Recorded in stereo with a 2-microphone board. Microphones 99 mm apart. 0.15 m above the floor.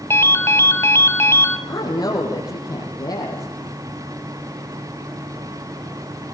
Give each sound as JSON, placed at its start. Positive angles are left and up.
{"t": 0.1, "sound": "a ringtone", "side_deg": 25, "distance_m": 1.1}
{"t": 1.7, "sound": "a woman speaking", "side_deg": 45, "distance_m": 5.5}